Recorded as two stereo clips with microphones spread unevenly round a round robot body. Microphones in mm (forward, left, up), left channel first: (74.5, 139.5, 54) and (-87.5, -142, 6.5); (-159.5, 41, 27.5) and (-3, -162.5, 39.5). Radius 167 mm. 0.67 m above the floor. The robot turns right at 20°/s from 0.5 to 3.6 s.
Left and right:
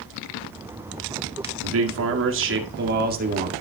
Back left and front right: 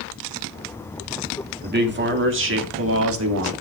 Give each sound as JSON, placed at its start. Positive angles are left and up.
{"t": 1.6, "sound": "a man speaking", "azimuth_deg": -100, "distance_m": 1.8}